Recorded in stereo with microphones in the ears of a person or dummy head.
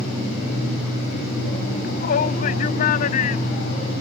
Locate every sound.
1.8 s a shout: 55° left (ahead or behind); by 4.0 s 45° left (ahead or behind)